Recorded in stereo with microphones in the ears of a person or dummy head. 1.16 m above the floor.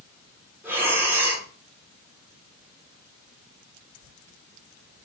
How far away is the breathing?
About 1.2 m.